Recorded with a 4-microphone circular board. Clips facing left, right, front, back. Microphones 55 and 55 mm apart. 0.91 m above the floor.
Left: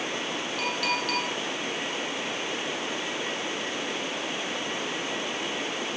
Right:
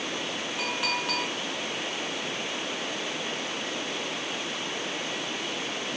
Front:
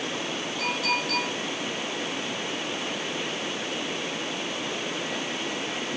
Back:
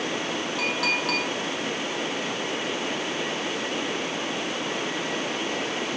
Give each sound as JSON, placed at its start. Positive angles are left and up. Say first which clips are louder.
{"t": 0.6, "sound": "a clink", "louder": "left 1 dB, back 1 dB", "azimuth_deg": -165, "distance_m": 7.5}